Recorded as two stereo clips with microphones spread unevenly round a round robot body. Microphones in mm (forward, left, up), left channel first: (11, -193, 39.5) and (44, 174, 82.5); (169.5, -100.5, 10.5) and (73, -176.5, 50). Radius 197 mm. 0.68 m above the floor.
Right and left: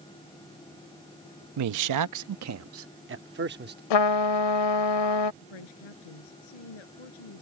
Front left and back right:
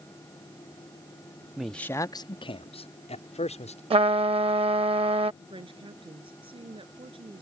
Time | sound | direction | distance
1.6 | a man speaking | 115° left | ?
3.9 | a trumpet | 120° right | ?
5.4 | a woman speaking | 100° right | ?